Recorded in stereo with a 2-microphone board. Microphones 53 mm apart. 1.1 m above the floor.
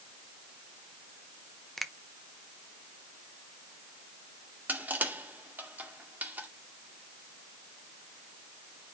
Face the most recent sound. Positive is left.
turn(degrees=-35)  # may be behind; listen again after turning